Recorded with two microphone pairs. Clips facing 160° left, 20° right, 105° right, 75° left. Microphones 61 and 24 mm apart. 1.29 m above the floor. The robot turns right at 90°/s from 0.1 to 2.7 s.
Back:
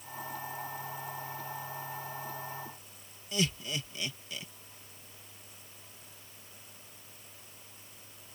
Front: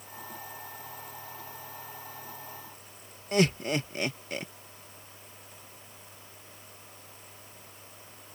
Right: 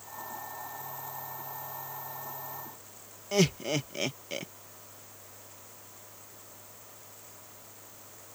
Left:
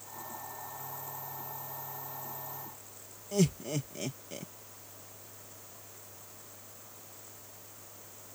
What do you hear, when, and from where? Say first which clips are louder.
3.3 s laughter: front 8 dB, right 3 dB; 60° right